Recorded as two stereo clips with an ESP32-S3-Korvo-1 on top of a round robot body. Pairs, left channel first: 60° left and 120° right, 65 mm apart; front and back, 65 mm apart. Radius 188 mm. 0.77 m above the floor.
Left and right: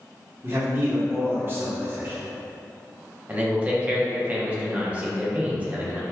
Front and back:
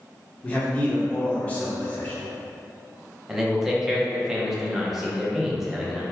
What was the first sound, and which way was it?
A man speaking, 70° right.